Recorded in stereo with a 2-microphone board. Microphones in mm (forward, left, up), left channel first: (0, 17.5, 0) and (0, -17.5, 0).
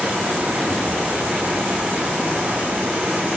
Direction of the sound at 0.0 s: 55° right (ahead or behind).